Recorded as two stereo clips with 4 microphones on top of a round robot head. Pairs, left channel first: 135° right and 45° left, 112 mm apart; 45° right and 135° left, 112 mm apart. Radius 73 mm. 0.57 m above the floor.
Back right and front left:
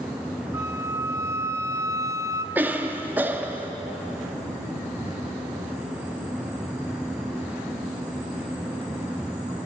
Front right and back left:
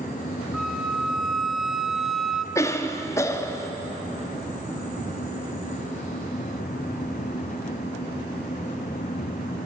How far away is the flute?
About 0.8 m.